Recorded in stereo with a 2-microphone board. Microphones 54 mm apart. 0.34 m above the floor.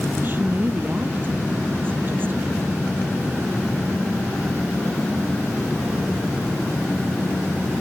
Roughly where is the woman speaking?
Right.